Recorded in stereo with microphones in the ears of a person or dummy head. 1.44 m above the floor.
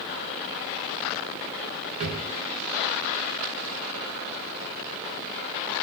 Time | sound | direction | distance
2.0 | a drawer | 30° right (ahead or behind) | 0.7 m